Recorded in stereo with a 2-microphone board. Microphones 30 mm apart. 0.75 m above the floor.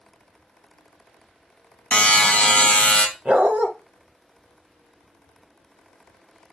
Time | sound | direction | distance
1.9 | a buzzer | 45° left (ahead or behind) | 0.6 m
3.2 | a dog barking | 45° right (ahead or behind) | 0.7 m